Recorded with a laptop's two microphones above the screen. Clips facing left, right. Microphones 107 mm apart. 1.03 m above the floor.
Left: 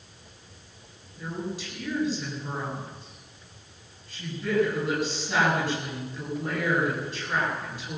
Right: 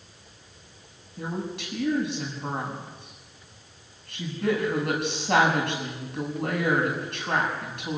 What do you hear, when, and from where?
1.2 s a woman speaking: 65° right (ahead or behind), 7.5 m